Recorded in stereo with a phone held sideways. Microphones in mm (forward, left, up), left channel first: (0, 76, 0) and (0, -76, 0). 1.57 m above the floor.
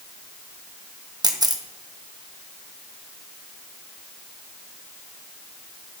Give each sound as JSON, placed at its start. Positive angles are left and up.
{"t": 1.2, "sound": "a camera shutter", "side_deg": -25, "distance_m": 1.0}